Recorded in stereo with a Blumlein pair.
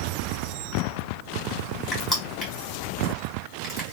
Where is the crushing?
5° left, 1.8 m.